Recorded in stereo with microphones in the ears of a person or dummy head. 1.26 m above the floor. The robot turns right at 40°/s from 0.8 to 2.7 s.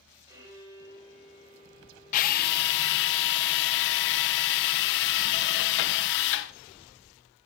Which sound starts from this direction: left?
A drill, at 2.1 s.